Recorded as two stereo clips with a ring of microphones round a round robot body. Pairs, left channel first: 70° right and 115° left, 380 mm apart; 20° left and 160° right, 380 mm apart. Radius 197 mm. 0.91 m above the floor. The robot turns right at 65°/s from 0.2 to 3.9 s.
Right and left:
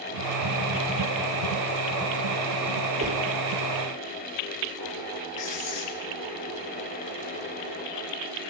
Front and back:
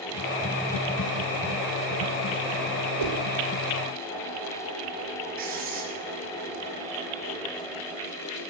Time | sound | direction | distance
3.0 | a whoosh | 175° right | 2.5 m
5.4 | writing | 90° right | 3.5 m